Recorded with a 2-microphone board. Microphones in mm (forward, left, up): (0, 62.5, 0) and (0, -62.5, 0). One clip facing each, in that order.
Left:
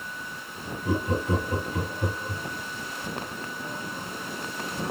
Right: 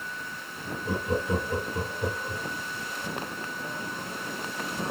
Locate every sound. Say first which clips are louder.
0.8 s laughter: left 2 dB; 55° left (ahead or behind), 3.5 m